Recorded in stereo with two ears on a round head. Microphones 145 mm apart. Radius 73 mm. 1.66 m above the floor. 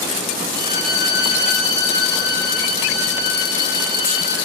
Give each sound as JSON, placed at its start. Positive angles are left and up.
{"t": 0.6, "sound": "a violin", "side_deg": 25, "distance_m": 1.3}